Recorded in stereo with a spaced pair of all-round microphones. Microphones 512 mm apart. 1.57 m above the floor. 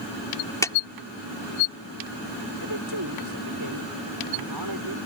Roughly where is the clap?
Centre.